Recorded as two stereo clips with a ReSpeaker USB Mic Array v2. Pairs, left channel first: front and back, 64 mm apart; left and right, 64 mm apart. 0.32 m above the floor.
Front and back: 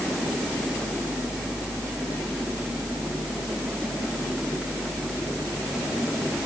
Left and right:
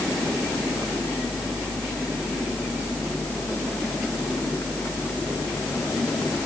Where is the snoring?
No snoring in this recording.